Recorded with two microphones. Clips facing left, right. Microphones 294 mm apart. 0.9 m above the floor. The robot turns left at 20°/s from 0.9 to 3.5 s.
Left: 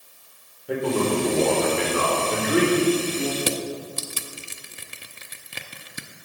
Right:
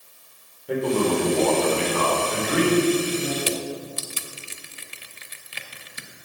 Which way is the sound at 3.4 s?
55° left (ahead or behind).